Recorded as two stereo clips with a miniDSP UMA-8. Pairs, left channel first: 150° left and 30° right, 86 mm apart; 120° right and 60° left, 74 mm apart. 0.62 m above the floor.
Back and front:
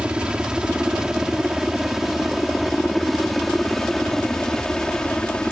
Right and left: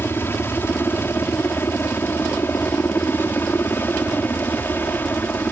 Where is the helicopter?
100° right; by 5.5 s 140° right.